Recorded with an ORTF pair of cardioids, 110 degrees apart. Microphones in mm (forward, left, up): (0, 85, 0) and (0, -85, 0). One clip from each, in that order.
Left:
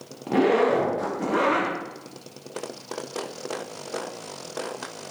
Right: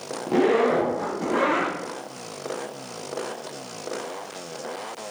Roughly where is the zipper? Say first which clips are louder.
Even; ahead.